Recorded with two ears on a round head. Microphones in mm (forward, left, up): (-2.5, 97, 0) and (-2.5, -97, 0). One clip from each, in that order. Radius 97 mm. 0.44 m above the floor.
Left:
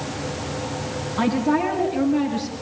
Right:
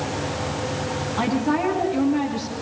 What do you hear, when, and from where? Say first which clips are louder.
1.2 s a woman speaking: left 2 dB; 5° right (ahead or behind), 4.5 m